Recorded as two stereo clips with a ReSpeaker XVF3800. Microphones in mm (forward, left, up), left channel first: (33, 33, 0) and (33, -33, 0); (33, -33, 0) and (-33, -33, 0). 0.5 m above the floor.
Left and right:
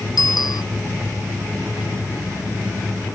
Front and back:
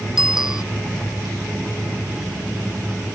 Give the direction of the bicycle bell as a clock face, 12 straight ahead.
9 o'clock.